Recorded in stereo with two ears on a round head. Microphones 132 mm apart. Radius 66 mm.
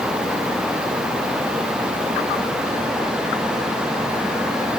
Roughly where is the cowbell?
No cowbell in this recording.